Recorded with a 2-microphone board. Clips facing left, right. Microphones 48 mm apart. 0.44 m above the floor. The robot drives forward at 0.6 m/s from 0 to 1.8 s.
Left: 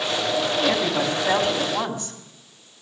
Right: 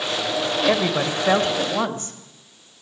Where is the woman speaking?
55° right (ahead or behind), 1.4 m; by 2.2 s 40° right (ahead or behind), 1.7 m.